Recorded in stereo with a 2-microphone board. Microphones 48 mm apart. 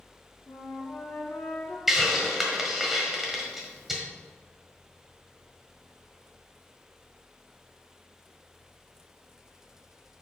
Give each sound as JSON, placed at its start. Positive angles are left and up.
{"t": 0.5, "sound": "a flute", "side_deg": 45, "distance_m": 1.5}
{"t": 1.9, "sound": "a hiss", "side_deg": -5, "distance_m": 1.2}